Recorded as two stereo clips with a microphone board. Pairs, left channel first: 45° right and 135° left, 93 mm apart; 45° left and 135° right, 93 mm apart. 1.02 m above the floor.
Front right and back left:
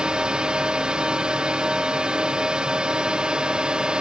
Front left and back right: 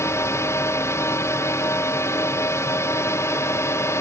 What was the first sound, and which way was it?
A drone, 65° left.